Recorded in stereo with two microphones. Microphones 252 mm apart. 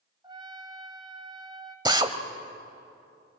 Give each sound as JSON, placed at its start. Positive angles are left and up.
{"t": 0.2, "sound": "a trumpet", "side_deg": -15, "distance_m": 2.5}
{"t": 1.9, "sound": "a drill", "side_deg": -15, "distance_m": 1.1}